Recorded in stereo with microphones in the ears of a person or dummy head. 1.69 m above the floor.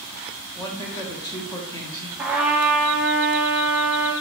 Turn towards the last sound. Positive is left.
turn(degrees=-5)  # may be behind; listen again after turning